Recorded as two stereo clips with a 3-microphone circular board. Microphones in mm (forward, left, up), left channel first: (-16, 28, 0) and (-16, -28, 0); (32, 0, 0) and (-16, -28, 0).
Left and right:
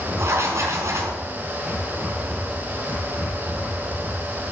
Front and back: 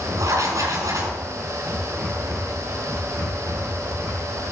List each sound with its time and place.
0.2 s writing: 125° right, 4.5 m